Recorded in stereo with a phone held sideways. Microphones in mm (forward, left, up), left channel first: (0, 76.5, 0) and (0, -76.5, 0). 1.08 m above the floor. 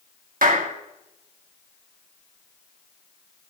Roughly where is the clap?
Right.